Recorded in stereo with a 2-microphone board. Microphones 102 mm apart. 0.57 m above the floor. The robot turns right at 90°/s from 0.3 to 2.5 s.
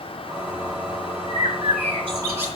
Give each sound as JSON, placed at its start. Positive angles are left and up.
{"t": 1.3, "sound": "a bird", "azimuth_deg": -125, "distance_m": 3.5}